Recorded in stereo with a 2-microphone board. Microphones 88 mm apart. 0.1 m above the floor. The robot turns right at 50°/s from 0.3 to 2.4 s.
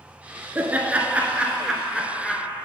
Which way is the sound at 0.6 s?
20° right (ahead or behind).